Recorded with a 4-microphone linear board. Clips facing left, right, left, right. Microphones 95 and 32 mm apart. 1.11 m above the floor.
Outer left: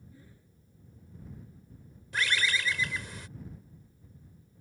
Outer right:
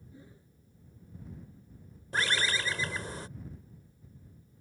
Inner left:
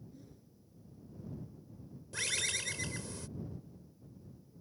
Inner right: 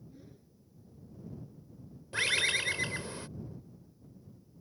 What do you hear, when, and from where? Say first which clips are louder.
0.1 s a whoosh: outer right 2 dB, inner right 2 dB; 20° right (ahead or behind)
2.1 s a bird: even, inner right 7 dB; 35° right (ahead or behind)